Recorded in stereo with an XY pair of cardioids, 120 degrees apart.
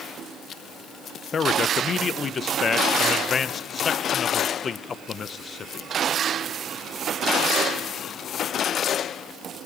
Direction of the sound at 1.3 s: 35° left.